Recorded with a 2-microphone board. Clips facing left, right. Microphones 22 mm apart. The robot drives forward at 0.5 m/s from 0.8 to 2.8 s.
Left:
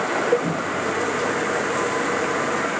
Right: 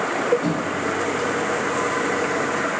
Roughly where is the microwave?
Right.